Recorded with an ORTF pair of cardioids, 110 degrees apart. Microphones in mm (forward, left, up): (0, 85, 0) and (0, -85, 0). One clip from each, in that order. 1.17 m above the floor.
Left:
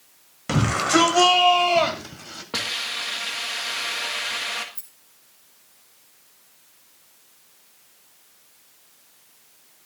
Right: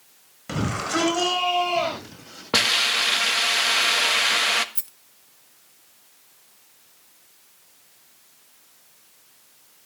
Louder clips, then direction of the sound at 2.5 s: Right 7 dB; 40° right.